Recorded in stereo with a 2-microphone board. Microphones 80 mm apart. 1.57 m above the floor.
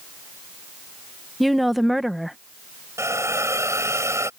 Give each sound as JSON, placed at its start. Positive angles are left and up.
{"t": 1.4, "sound": "a woman speaking", "side_deg": 0}
{"t": 3.0, "sound": "a hiss", "side_deg": -40}